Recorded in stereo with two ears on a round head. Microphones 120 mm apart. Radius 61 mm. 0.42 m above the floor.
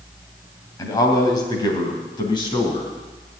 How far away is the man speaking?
About 2.5 m.